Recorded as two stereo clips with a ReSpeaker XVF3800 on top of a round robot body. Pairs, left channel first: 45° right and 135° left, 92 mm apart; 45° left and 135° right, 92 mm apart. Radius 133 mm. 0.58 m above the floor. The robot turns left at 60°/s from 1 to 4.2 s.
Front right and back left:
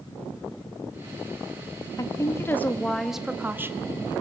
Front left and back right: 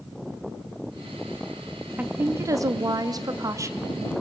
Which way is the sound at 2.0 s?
70° right.